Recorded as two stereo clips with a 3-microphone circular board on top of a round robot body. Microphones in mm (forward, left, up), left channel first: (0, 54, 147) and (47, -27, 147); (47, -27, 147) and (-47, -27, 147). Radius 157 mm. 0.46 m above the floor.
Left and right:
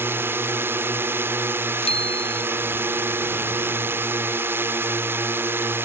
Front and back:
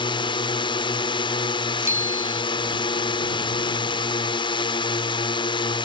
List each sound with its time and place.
0.0 s a drone: 5° left
1.8 s a bicycle bell: 115° left